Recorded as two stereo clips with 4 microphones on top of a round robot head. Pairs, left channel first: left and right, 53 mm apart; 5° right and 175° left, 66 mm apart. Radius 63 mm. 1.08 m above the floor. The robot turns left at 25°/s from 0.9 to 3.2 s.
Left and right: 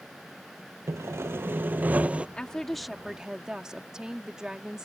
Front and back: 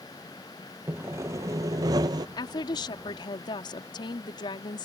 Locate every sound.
0.9 s sawing: 125° right; by 2.3 s 160° right
2.4 s a woman speaking: 10° left; by 4.8 s 10° right